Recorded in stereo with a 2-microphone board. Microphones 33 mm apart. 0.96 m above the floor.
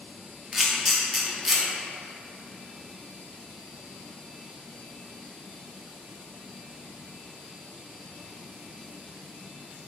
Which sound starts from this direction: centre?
A camera shutter, at 0.5 s.